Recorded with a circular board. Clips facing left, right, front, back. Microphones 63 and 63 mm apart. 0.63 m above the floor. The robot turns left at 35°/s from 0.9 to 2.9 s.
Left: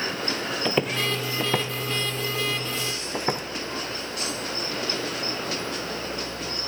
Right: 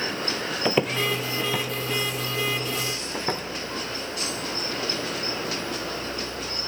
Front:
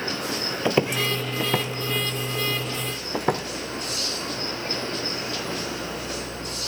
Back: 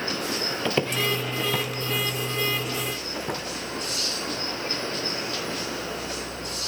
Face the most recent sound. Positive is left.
turn(degrees=15)